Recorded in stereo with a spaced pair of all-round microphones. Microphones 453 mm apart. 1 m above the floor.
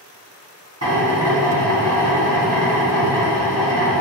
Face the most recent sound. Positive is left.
turn(degrees=-35)  # may be behind; listen again after turning